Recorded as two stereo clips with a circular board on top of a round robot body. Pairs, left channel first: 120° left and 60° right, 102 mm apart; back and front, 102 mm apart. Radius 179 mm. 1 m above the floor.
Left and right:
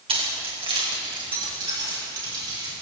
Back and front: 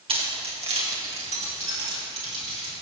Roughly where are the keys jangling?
Ahead right.